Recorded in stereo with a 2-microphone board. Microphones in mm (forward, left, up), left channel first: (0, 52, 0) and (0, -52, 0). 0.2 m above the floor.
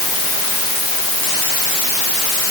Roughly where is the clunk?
I don't hear a clunk.